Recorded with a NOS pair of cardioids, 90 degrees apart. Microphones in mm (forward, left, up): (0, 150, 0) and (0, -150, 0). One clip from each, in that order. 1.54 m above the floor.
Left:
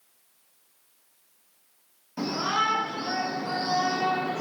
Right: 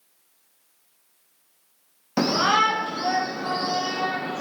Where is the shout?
70° right, 0.5 m; by 4.4 s 65° right, 1.8 m.